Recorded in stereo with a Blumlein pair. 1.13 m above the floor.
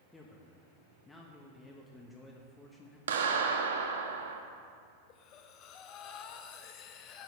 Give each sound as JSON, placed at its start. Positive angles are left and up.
{"t": 0.1, "sound": "a man speaking", "azimuth_deg": 10, "distance_m": 1.3}
{"t": 3.1, "sound": "a clap", "azimuth_deg": -60, "distance_m": 1.3}
{"t": 5.1, "sound": "breathing", "azimuth_deg": 35, "distance_m": 0.9}